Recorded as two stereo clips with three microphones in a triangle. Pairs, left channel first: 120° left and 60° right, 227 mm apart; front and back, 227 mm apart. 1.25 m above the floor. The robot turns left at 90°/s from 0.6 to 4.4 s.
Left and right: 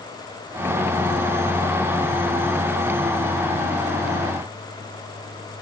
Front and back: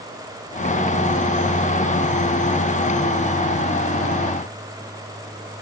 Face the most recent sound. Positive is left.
No sound to turn to.